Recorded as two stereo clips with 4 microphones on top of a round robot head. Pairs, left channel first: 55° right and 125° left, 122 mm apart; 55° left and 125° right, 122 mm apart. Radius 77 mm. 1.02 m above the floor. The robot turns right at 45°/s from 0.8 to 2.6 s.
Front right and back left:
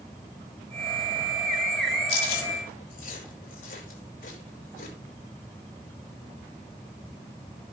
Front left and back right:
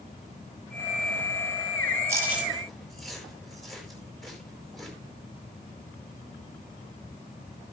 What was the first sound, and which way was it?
Chewing, 60° right.